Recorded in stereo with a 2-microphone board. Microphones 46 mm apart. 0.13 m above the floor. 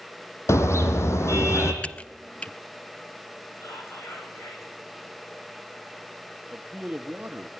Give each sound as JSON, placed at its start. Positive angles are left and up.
{"t": 0.5, "sound": "a car horn", "side_deg": 75, "distance_m": 3.0}
{"t": 1.8, "sound": "typing on a keyboard", "side_deg": 25, "distance_m": 0.6}
{"t": 3.6, "sound": "whispering", "side_deg": 75, "distance_m": 8.0}
{"t": 6.5, "sound": "a man speaking", "side_deg": -35, "distance_m": 1.6}